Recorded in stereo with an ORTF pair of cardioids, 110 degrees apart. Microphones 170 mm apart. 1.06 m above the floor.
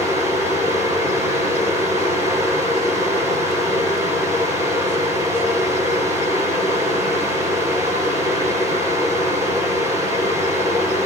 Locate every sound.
0.0 s a fan: 20° right, 5 m